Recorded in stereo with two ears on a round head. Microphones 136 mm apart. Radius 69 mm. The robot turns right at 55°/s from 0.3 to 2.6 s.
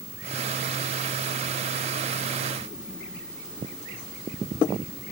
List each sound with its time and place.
Only background noise.